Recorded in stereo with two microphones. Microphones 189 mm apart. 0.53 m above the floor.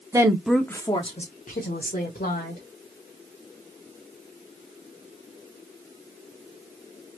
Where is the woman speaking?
20° right (ahead or behind), 0.8 m; by 2.6 s 60° left (ahead or behind), 1.7 m.